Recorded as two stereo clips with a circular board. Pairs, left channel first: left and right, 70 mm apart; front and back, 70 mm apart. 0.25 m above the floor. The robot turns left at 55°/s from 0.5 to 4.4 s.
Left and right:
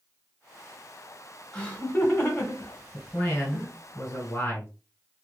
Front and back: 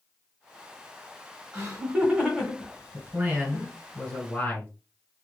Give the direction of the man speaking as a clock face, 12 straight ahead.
7 o'clock.